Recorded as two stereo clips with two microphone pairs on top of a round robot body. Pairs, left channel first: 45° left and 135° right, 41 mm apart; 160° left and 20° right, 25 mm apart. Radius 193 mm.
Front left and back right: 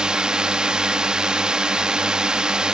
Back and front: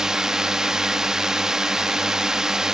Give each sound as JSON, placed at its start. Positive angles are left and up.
{"t": 0.0, "sound": "a drone", "azimuth_deg": -65}